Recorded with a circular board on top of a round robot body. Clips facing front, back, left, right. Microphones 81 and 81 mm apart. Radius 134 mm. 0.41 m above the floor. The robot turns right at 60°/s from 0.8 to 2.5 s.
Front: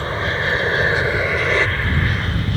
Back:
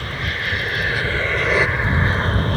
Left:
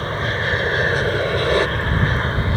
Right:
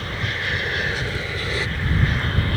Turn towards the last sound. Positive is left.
turn(degrees=150)